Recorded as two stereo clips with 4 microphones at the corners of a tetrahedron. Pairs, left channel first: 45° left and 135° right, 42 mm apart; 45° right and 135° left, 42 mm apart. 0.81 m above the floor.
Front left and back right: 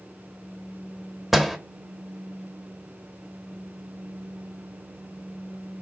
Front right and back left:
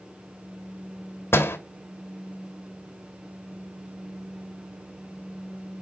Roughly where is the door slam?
Ahead right.